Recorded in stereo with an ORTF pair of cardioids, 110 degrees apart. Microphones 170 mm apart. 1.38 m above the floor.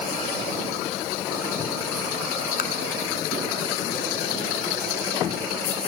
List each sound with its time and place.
2.6 s tapping: 55° left, 5.5 m